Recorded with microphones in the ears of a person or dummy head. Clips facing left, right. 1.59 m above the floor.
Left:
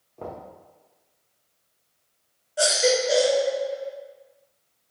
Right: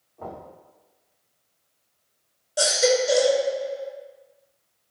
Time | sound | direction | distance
0.2 | knocking | 50° left (ahead or behind) | 1.1 m
2.6 | a baby crying | 65° right (ahead or behind) | 1.2 m